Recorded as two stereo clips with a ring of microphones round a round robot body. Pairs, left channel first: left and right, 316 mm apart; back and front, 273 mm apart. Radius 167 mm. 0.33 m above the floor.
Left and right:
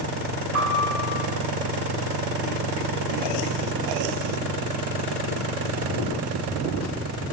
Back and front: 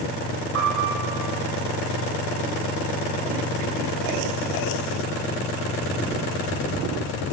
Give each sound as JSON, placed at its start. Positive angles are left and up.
{"t": 0.5, "sound": "a piano", "azimuth_deg": -45, "distance_m": 1.3}